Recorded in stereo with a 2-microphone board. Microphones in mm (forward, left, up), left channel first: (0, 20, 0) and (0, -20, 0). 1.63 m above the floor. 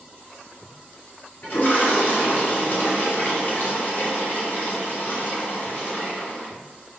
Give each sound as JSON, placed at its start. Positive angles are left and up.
{"t": 1.4, "sound": "a toilet flushing", "side_deg": 50, "distance_m": 1.9}